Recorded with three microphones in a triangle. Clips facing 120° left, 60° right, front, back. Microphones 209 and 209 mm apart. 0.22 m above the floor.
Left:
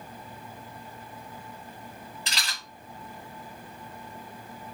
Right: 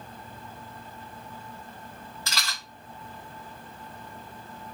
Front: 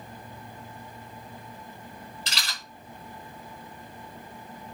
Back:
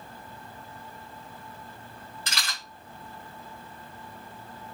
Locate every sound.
2.3 s a rattle: 175° right, 2.5 m